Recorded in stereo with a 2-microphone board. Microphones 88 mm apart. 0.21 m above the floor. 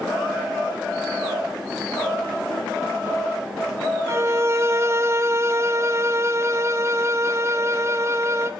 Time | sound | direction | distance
4.1 | a violin | 35° right (ahead or behind) | 1.2 m